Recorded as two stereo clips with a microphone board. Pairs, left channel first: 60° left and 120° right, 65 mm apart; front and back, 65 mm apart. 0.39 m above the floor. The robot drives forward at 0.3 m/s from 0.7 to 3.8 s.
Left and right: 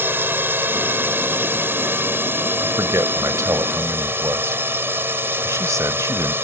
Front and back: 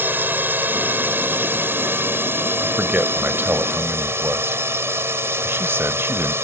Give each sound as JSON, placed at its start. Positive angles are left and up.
{"t": 0.0, "sound": "a drone", "azimuth_deg": -145}
{"t": 2.6, "sound": "a man speaking", "azimuth_deg": -120}